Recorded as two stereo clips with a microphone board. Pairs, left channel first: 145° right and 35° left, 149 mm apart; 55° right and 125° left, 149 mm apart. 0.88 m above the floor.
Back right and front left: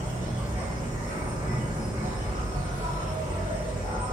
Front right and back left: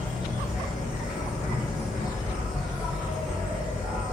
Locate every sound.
0.0 s an insect: 45° left, 1.3 m